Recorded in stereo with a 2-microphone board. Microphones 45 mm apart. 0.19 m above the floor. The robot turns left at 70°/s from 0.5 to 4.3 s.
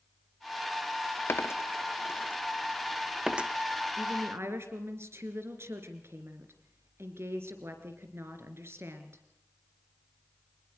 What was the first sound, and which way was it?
A dropped coin, 55° left (ahead or behind).